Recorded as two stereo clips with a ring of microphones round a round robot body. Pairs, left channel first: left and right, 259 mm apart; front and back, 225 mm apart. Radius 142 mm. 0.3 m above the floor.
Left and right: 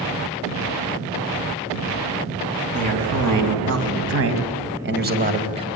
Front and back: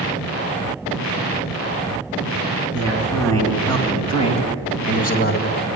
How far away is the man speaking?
About 4.5 m.